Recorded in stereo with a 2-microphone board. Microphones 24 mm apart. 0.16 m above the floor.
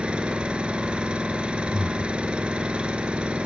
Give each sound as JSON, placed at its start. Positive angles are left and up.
{"t": 0.0, "sound": "an engine running", "side_deg": -55, "distance_m": 1.3}
{"t": 1.7, "sound": "breathing", "side_deg": 0, "distance_m": 0.7}